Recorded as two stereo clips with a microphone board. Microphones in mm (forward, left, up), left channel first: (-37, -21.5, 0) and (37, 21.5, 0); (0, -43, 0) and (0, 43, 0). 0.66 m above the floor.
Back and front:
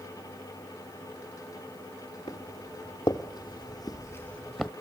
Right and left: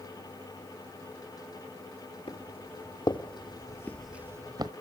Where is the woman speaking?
No woman speaking in this recording.